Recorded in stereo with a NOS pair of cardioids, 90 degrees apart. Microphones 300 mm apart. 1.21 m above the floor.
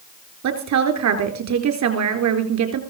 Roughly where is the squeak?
I don't hear a squeak.